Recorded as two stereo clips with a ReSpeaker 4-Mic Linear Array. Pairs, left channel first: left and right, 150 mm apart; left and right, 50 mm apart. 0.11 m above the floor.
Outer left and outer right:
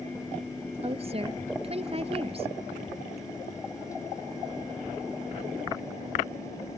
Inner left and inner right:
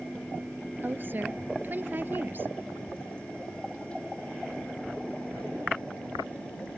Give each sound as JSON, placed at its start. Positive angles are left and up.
{"t": 0.8, "sound": "a woman speaking", "side_deg": -40}